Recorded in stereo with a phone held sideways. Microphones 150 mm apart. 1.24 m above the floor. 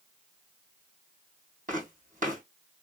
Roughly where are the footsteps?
Right.